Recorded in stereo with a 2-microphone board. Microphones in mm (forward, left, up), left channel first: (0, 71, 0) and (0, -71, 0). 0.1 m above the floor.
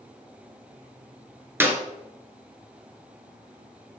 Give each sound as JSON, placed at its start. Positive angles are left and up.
{"t": 1.6, "sound": "a clap", "side_deg": -15, "distance_m": 1.3}